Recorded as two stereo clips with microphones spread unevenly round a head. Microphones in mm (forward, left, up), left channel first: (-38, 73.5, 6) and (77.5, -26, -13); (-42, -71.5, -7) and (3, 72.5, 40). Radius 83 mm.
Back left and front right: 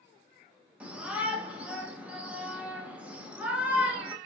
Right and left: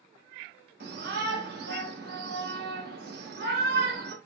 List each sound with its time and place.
0.8 s a shout: 40° left, 1.1 m